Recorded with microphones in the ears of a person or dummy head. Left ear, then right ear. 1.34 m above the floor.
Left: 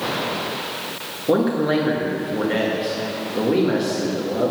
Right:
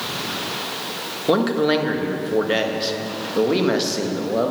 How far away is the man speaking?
About 1.6 m.